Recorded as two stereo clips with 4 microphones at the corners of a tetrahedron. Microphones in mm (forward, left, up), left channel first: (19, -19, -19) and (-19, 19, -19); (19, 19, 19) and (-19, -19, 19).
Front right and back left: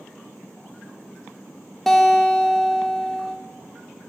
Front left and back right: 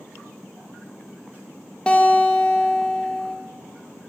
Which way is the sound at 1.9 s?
30° left.